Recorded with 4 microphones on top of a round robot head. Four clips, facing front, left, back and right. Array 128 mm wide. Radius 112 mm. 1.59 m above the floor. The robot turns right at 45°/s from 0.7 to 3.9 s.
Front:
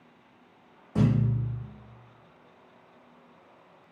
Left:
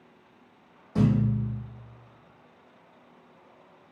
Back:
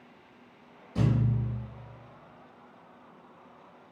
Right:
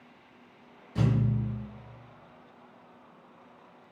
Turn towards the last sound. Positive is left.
turn(degrees=170)